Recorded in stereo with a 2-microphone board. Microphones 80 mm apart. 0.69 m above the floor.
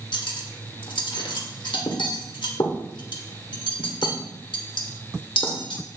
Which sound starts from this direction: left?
Cutlery clinking, at 0.1 s.